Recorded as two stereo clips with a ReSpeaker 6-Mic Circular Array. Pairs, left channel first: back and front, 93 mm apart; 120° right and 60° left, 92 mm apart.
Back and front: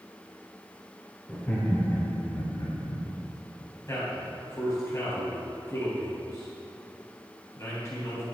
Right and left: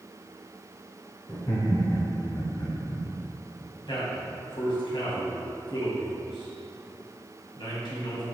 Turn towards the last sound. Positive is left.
turn(degrees=-130)